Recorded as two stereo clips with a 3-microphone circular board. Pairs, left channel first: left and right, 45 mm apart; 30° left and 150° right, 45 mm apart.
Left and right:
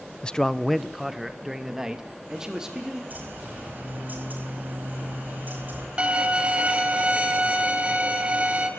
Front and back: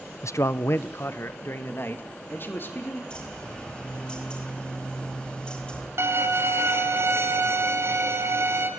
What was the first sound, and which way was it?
A man speaking, 20° left.